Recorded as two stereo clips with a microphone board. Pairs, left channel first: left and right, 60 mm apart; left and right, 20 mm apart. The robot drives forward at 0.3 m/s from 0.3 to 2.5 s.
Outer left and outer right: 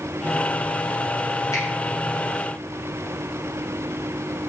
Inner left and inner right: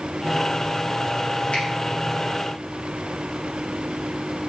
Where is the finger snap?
65° left (ahead or behind), 0.8 m.